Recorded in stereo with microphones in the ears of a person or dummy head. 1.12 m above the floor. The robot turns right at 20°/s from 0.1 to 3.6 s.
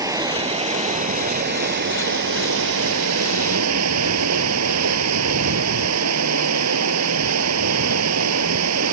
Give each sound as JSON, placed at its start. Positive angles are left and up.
{"t": 0.0, "sound": "running water", "azimuth_deg": -160}